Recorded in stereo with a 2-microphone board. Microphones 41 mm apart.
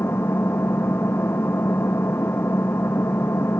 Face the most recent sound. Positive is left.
turn(degrees=85)